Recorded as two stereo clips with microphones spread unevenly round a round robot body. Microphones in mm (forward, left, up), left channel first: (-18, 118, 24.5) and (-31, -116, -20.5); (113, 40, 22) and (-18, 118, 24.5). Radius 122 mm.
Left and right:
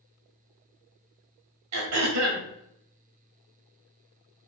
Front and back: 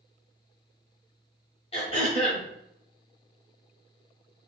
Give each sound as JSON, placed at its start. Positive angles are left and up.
{"t": 1.7, "sound": "throat clearing", "azimuth_deg": -95, "distance_m": 1.9}